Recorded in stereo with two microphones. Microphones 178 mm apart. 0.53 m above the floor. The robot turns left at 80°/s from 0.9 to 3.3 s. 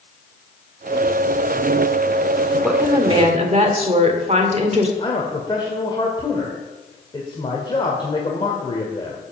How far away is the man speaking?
About 1.8 m.